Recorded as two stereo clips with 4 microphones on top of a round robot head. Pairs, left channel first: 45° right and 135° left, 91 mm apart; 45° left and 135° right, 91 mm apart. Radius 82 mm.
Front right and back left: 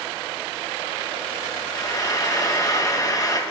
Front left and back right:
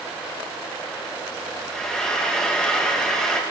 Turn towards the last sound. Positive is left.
turn(degrees=-35)